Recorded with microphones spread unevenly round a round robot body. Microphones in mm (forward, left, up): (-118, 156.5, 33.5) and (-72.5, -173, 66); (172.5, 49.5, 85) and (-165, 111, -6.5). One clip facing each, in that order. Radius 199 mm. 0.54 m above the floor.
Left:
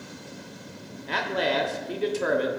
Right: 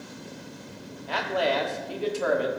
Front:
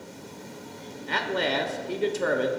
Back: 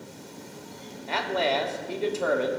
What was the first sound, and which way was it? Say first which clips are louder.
A man speaking: even, back 1 dB; 65° left.